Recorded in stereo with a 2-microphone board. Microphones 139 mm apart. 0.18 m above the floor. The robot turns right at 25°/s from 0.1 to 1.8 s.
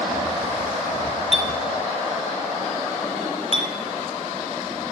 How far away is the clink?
About 1.5 m.